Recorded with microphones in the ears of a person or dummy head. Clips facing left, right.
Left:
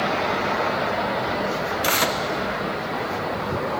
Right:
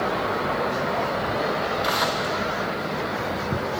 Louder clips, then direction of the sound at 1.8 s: Left 1 dB; 40° left (ahead or behind).